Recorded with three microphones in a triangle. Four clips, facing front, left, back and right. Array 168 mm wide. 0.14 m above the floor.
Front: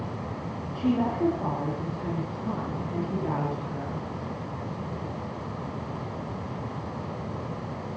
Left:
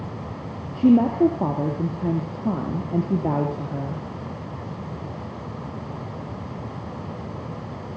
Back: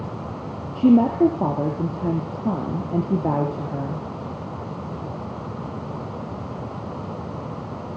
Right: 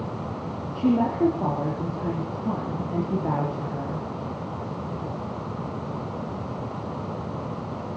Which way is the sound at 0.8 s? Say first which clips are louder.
Left 5 dB, back 10 dB; 145° left.